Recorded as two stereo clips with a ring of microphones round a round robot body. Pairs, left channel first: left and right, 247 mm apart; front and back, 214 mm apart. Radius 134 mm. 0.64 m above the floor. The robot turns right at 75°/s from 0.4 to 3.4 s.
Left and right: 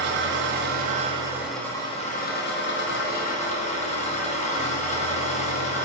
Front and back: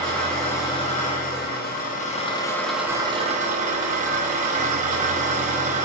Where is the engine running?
85° right, 0.7 m; by 5.8 s 140° left, 0.7 m.